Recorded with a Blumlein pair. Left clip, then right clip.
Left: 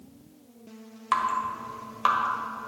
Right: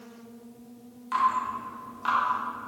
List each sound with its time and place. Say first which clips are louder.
1.1 s dripping: right 1 dB; 60° left, 1.7 m